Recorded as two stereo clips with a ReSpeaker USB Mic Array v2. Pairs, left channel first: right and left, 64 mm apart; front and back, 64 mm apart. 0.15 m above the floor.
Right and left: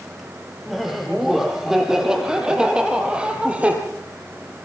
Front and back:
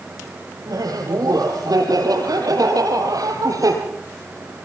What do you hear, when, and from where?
0.7 s laughter: 175° left, 5.5 m; by 3.8 s 160° left, 4.5 m